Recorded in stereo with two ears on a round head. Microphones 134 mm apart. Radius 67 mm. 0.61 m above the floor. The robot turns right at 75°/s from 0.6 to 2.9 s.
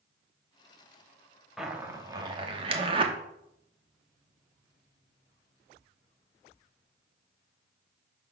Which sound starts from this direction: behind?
A zipper, at 1.6 s.